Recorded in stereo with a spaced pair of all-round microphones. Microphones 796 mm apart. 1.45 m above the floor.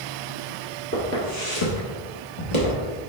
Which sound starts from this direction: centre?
Footsteps, at 0.9 s.